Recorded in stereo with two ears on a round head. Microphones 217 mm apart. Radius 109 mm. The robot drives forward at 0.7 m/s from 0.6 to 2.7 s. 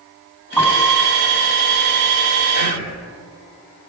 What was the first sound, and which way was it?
A piano, 15° left (ahead or behind).